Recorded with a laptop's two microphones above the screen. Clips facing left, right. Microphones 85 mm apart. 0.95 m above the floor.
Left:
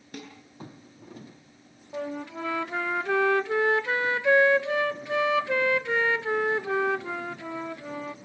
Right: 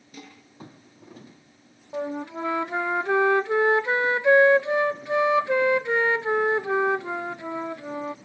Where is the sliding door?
I don't hear a sliding door.